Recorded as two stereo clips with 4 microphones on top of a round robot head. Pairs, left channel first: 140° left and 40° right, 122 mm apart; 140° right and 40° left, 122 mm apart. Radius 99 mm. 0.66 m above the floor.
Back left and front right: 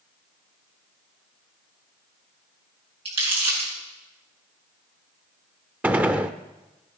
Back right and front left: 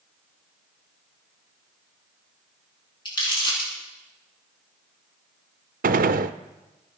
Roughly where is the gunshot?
Ahead left.